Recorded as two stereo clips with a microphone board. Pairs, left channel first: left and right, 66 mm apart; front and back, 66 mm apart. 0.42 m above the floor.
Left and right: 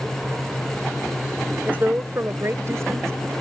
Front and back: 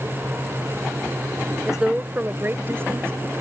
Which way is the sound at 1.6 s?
100° right.